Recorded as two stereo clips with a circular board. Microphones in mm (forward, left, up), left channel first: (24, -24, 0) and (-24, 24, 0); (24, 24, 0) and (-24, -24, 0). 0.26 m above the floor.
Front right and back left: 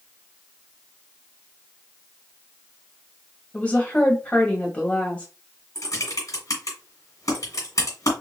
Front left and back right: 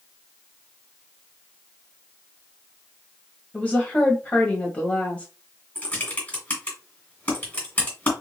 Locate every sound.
3.5 s a woman speaking: straight ahead, 1.2 m
5.8 s typing on a keyboard: 20° right, 2 m